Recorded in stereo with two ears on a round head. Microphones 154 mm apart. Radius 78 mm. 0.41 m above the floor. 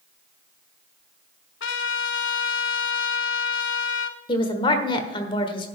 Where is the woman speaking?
30° left (ahead or behind), 1.4 m.